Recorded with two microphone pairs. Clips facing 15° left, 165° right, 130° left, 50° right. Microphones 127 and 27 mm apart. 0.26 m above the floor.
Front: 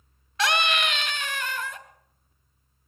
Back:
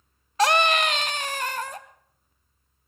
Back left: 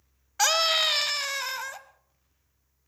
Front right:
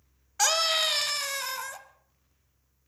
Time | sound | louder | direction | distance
0.4 | a scream | back 5 dB, back left 2 dB | 165° right | 1.1 m